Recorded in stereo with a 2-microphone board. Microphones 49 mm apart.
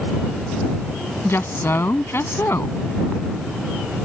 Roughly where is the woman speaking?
Left.